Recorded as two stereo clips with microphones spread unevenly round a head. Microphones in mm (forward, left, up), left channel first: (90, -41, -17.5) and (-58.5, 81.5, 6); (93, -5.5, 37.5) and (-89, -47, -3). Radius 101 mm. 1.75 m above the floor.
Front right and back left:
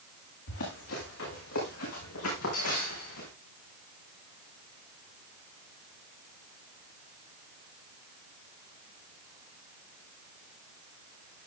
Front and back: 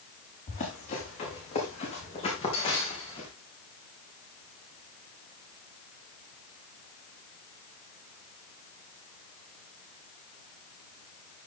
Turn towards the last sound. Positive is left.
turn(degrees=-45)